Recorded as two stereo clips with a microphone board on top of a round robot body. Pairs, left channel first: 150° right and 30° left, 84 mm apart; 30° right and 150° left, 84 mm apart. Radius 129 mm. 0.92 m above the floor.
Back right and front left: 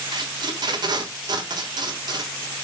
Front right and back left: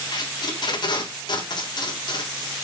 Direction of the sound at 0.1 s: Straight ahead.